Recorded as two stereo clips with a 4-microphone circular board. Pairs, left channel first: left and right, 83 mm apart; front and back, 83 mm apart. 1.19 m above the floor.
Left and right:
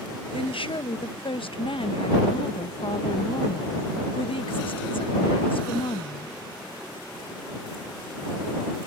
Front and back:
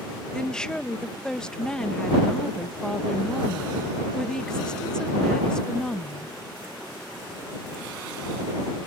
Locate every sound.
0.3 s a woman speaking: 80° left